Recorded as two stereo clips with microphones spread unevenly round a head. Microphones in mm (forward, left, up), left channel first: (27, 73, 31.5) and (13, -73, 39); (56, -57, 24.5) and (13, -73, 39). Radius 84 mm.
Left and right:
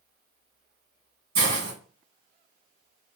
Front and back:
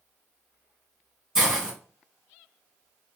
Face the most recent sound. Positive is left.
turn(degrees=-85)